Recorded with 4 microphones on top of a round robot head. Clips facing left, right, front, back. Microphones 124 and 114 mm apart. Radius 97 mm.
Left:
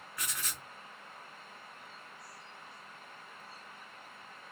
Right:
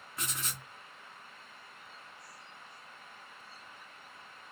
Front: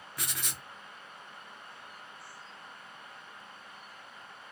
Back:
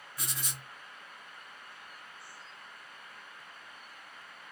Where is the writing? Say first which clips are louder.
Right 2 dB, front 2 dB; 25° right, 0.7 m.